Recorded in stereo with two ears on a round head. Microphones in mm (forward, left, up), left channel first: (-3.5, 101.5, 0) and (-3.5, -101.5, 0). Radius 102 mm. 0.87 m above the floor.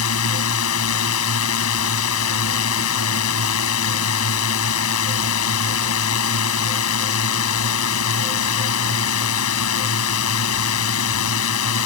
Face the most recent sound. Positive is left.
turn(degrees=70)  # may be behind; listen again after turning